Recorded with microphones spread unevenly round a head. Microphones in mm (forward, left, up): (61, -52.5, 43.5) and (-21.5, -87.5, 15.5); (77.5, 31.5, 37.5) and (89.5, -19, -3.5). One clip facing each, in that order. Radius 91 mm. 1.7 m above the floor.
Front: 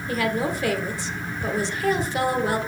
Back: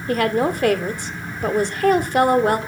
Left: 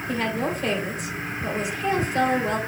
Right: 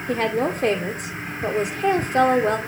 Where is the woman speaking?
120° right, 1.5 m.